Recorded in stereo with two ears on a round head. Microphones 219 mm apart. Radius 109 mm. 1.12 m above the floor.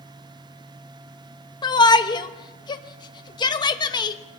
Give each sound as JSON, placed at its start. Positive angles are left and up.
{"t": 1.6, "sound": "a shout", "side_deg": 20, "distance_m": 1.2}